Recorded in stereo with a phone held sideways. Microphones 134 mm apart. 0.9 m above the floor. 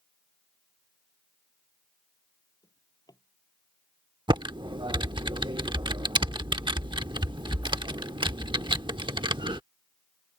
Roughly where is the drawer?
Left.